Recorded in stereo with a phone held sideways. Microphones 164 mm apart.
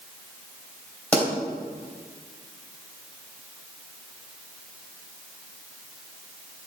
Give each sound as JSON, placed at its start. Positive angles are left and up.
{"t": 1.1, "sound": "a pop", "side_deg": 10, "distance_m": 3.0}